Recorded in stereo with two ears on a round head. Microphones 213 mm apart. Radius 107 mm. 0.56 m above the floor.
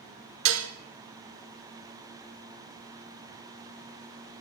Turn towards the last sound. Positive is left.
turn(degrees=-55)  # may be behind; listen again after turning